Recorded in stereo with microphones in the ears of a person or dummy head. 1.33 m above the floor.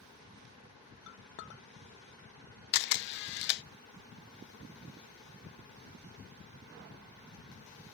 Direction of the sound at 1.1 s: 55° left (ahead or behind).